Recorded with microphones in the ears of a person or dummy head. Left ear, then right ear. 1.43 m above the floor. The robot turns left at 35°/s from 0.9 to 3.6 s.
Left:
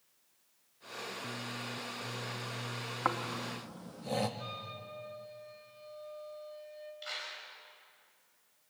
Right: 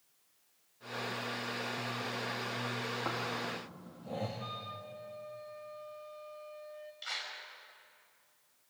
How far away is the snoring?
About 1.6 m.